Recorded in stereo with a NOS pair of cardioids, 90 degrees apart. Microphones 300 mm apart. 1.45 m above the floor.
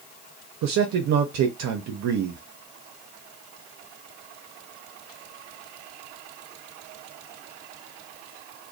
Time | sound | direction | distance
0.6 | a man speaking | 65° right | 0.6 m